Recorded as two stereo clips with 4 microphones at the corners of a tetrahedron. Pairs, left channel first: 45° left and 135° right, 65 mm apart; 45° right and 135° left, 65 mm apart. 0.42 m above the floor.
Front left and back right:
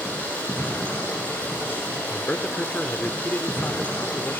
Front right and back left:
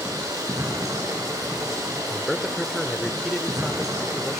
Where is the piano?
I don't hear a piano.